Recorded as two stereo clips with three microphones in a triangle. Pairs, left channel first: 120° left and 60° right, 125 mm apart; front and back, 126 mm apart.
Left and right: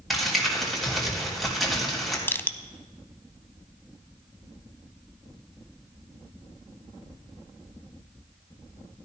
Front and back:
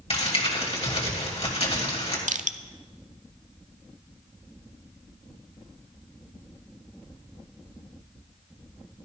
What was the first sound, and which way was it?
Crumpling, 30° left.